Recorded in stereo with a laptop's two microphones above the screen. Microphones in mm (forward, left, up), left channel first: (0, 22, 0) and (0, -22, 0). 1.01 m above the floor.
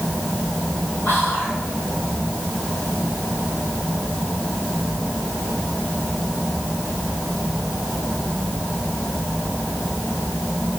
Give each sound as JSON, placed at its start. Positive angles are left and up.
{"t": 1.1, "sound": "whispering", "side_deg": 45, "distance_m": 4.0}